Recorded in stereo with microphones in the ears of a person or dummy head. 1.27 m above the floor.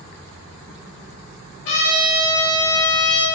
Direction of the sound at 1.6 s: 70° left (ahead or behind).